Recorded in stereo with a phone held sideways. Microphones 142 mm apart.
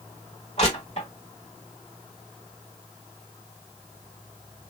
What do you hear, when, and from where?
0.6 s crushing: 45° left (ahead or behind), 1.4 m